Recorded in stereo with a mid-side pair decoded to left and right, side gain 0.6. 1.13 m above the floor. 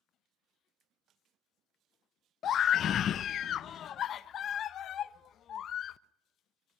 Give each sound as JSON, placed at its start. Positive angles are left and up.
{"t": 2.4, "sound": "a scream", "azimuth_deg": 50, "distance_m": 0.7}